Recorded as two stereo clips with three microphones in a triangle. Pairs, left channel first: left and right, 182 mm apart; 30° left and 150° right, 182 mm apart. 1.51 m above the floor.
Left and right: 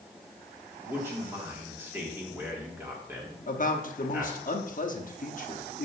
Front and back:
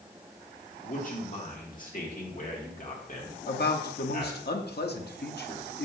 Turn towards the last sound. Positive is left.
turn(degrees=50)